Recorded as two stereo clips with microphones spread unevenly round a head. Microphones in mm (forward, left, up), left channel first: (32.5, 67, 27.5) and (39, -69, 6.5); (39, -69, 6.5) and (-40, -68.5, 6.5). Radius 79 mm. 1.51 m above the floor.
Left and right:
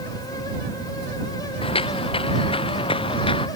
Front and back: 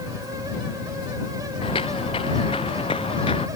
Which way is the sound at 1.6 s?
50° left.